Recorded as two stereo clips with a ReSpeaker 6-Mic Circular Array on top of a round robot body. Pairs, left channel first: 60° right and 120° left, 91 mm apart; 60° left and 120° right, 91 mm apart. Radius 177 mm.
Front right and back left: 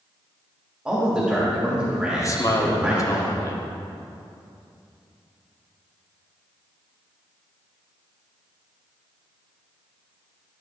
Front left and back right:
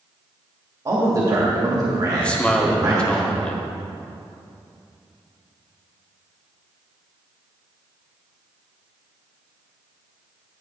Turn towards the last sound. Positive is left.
turn(degrees=-15)